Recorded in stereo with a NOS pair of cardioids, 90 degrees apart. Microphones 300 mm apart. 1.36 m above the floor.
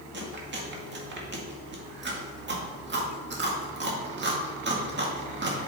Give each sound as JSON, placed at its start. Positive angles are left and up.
{"t": 0.1, "sound": "chewing", "azimuth_deg": -35, "distance_m": 1.9}